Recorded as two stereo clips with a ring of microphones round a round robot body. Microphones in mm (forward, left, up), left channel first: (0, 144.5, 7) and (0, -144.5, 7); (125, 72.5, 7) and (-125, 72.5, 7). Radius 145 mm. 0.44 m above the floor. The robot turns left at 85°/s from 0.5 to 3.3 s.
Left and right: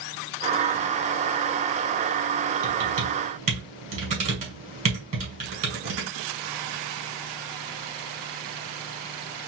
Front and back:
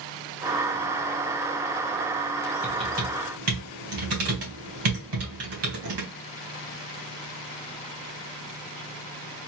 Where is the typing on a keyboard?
95° right, 2 m; by 6.1 s 155° right, 2 m.